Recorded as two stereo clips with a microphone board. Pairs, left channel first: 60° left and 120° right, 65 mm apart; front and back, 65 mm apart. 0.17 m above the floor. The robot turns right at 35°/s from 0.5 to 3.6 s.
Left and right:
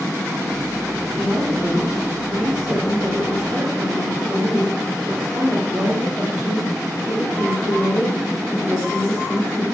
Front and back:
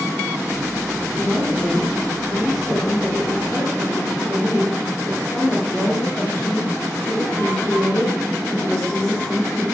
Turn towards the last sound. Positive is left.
turn(degrees=-70)